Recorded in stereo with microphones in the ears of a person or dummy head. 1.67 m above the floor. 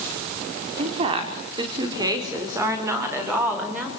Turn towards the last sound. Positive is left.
turn(degrees=-5)  # may be behind; listen again after turning